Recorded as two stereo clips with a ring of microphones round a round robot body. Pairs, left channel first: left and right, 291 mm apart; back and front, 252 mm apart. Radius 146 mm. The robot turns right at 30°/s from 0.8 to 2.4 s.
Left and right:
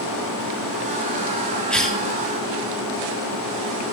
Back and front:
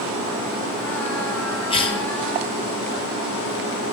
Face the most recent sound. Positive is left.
turn(degrees=-170)